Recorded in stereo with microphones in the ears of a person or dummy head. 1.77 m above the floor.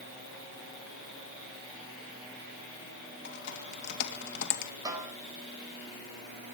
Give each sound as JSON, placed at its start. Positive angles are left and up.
{"t": 3.2, "sound": "typing on a keyboard", "side_deg": 55, "distance_m": 3.0}
{"t": 4.8, "sound": "a snare drum", "side_deg": -30, "distance_m": 4.5}